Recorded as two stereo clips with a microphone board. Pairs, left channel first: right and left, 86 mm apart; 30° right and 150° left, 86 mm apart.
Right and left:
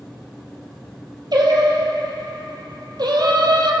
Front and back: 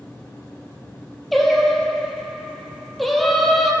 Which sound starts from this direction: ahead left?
Singing, at 1.3 s.